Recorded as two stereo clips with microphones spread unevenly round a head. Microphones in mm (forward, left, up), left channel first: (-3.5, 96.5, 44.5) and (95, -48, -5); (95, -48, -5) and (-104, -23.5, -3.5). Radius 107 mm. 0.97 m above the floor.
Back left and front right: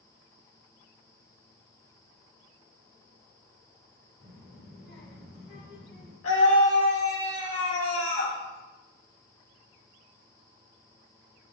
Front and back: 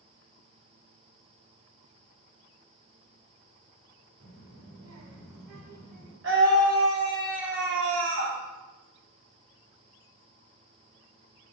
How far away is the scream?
About 2.5 m.